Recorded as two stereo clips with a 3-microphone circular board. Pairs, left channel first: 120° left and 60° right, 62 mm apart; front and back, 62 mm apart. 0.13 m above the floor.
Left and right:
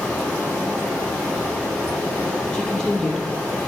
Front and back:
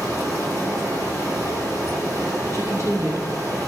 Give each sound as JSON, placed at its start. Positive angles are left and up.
{"t": 0.0, "sound": "running water", "azimuth_deg": -175, "distance_m": 2.5}
{"t": 2.5, "sound": "a woman speaking", "azimuth_deg": -160, "distance_m": 2.5}